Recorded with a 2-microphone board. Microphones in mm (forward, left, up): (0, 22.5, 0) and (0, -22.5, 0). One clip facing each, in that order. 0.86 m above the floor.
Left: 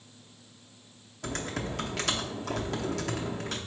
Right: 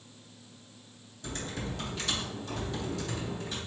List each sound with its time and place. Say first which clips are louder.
1.2 s typing on a keyboard: left 4 dB; 80° left, 0.7 m